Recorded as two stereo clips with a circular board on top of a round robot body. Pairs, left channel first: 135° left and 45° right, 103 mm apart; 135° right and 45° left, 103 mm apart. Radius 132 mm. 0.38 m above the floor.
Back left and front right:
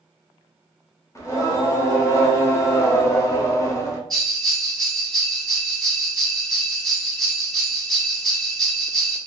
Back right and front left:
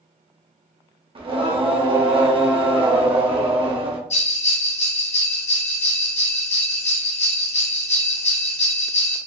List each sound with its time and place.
1.1 s singing: 75° left, 0.8 m
4.1 s a bell: 140° right, 0.6 m